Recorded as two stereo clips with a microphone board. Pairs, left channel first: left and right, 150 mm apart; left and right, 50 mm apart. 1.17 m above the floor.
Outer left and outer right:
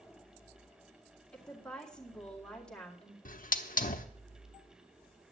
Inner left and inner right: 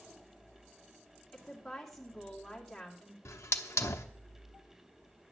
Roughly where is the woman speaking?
Centre.